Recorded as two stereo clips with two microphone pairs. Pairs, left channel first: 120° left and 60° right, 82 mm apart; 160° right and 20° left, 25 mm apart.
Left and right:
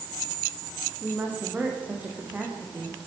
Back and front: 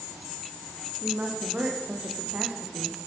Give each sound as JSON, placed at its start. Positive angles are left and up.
{"t": 1.0, "sound": "a woman speaking", "azimuth_deg": 10, "distance_m": 7.5}